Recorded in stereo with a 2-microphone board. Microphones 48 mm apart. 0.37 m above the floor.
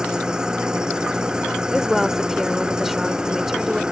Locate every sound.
0.0 s an engine running: 15° right (ahead or behind)
1.7 s a woman speaking: 5° right (ahead or behind)